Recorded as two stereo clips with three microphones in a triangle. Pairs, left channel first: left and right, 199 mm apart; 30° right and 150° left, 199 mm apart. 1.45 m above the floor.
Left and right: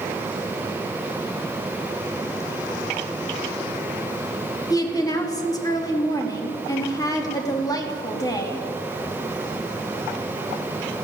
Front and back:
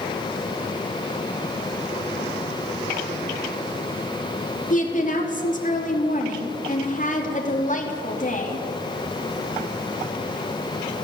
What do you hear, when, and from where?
4.7 s a woman speaking: 20° left, 3 m